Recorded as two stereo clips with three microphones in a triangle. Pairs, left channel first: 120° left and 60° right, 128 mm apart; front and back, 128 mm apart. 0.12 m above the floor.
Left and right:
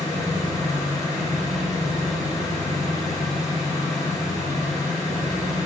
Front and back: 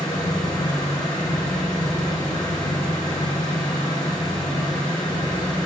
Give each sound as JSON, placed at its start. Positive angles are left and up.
{"t": 0.0, "sound": "an engine running", "azimuth_deg": 55, "distance_m": 6.0}